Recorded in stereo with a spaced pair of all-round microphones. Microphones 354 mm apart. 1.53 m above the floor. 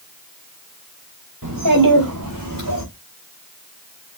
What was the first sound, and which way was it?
A child speaking, 70° right (ahead or behind).